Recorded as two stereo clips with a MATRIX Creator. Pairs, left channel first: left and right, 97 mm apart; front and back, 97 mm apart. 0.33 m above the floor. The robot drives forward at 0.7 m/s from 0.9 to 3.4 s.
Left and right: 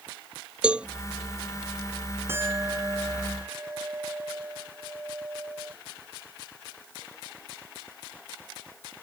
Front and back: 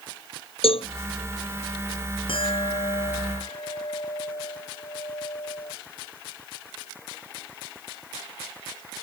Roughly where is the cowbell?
Ahead.